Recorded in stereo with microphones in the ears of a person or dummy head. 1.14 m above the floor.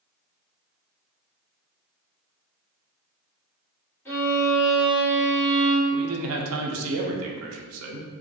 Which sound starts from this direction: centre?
A violin, at 4.0 s.